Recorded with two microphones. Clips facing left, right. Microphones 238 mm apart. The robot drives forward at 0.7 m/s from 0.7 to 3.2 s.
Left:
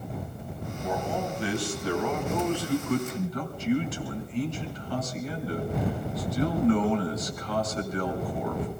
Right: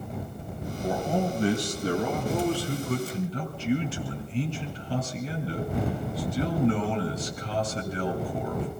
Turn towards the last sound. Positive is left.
turn(degrees=-30)  # may be behind; listen again after turning